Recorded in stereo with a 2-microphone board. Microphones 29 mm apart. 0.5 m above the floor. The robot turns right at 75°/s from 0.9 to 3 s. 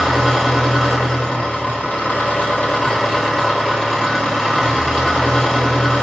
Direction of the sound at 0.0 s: 10° left.